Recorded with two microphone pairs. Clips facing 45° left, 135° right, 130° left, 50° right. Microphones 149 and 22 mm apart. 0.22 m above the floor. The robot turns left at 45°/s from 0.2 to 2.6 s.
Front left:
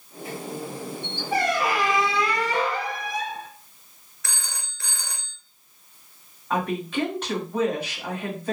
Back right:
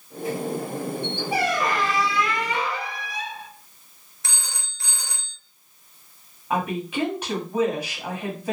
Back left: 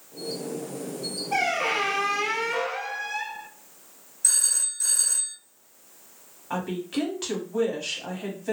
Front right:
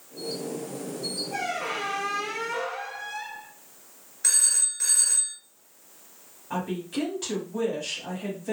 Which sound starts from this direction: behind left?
A squeak, at 1.3 s.